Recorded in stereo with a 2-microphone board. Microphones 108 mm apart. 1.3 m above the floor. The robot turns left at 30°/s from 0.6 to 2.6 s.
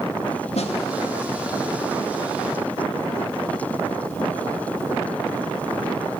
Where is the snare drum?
75° left (ahead or behind), 2.5 m; by 0.8 s 70° left (ahead or behind), 2.5 m.